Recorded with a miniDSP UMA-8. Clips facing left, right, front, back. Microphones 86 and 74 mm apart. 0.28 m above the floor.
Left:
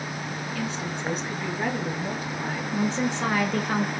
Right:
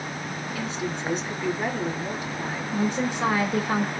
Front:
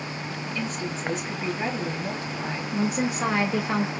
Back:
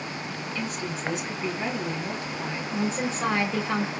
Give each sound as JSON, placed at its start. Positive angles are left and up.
{"t": 0.6, "sound": "a woman speaking", "azimuth_deg": 50, "distance_m": 2.5}
{"t": 2.7, "sound": "a woman speaking", "azimuth_deg": -45, "distance_m": 0.9}